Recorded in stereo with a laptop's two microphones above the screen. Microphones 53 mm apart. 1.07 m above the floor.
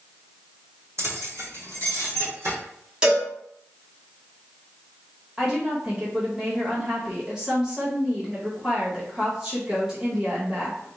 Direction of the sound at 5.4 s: 15° right (ahead or behind).